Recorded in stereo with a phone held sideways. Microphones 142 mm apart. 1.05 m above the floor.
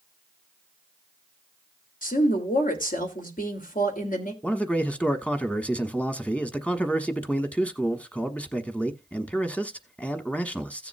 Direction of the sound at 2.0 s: 75° left (ahead or behind).